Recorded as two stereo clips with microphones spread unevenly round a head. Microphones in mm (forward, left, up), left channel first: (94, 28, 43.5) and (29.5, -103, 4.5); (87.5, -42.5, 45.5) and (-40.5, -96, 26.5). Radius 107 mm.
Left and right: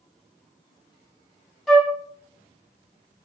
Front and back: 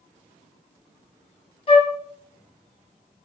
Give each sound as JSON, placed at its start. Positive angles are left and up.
{"t": 1.7, "sound": "a flute", "azimuth_deg": -25, "distance_m": 1.0}